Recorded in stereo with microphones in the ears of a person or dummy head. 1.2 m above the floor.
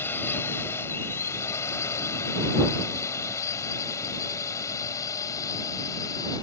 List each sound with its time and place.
0.0 s a drone: 10° left (ahead or behind); by 6.4 s 20° left (ahead or behind)